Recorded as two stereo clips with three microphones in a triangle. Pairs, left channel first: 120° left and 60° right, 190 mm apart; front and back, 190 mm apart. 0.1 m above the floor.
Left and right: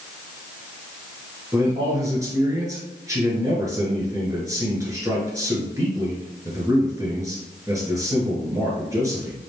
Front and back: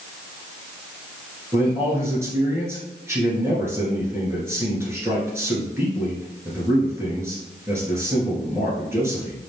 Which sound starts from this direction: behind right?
A man speaking, at 1.5 s.